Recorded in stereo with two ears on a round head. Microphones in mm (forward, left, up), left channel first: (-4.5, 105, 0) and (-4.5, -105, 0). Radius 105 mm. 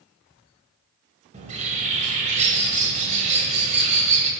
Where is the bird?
30° right (ahead or behind), 1.5 m.